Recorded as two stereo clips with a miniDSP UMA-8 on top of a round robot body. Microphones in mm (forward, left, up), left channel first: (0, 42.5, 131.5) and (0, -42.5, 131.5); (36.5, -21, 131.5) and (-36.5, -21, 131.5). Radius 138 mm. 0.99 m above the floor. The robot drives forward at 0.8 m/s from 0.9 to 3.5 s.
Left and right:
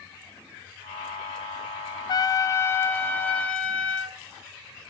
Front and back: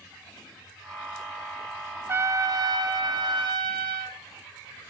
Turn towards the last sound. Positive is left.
turn(degrees=165)